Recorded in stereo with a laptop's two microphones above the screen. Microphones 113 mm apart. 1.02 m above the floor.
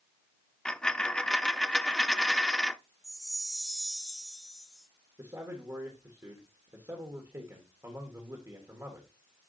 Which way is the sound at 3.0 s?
Centre (ahead or behind).